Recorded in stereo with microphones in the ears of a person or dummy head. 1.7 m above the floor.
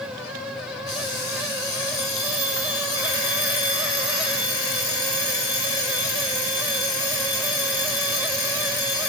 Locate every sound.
0.9 s an alarm clock: 25° left (ahead or behind), 1.1 m